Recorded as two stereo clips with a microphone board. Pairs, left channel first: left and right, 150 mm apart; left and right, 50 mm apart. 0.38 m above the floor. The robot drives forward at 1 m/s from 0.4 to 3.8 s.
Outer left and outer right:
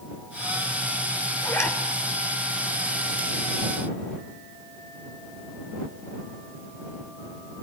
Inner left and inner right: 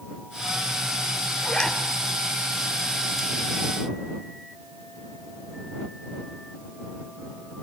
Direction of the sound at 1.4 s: 20° left (ahead or behind).